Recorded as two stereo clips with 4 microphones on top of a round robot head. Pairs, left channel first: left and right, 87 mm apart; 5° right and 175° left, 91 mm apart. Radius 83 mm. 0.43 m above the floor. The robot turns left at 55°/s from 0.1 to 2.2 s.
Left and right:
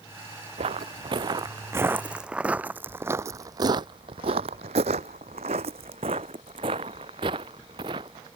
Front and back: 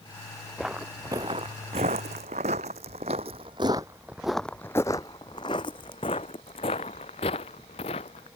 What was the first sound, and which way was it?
Footsteps, 95° right.